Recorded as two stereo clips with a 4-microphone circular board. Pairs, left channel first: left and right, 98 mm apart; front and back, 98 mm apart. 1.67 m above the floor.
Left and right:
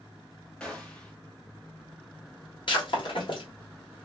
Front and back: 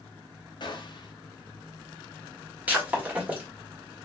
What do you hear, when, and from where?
0.6 s a gunshot: 10° left, 0.9 m
2.7 s breaking glass: 105° left, 1.5 m